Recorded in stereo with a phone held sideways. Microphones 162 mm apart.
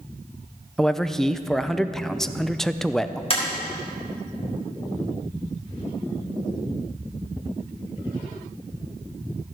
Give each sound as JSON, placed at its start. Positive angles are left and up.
{"t": 0.8, "sound": "a man speaking", "side_deg": 0, "distance_m": 0.5}
{"t": 3.3, "sound": "tapping", "side_deg": 35, "distance_m": 3.5}